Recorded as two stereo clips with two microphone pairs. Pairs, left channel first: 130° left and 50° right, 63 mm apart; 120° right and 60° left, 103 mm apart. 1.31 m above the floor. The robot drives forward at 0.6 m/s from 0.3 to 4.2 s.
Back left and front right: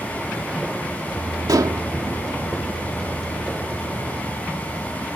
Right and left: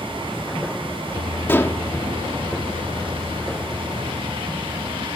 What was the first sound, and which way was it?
Dishes clattering, 50° right.